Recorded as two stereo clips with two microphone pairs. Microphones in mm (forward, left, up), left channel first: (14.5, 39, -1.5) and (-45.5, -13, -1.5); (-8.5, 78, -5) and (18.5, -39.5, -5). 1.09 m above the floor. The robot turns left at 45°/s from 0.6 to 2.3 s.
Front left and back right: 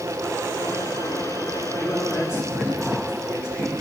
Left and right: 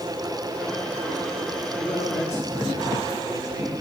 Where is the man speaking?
115° left, 5 m; by 3.7 s 90° left, 5 m.